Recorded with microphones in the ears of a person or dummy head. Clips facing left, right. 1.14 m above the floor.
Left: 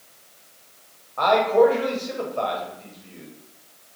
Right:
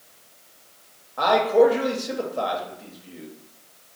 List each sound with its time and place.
1.2 s a man speaking: 5° right (ahead or behind), 0.6 m